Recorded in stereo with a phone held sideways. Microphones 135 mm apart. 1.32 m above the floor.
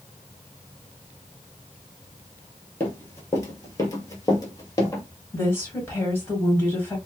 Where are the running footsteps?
15° left (ahead or behind), 1.5 m; by 5.0 s 25° left (ahead or behind), 1.6 m.